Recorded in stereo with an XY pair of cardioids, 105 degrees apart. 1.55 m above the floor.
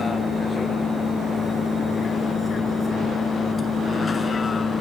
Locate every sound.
0.0 s a vehicle: 35° left; by 4.8 s 30° left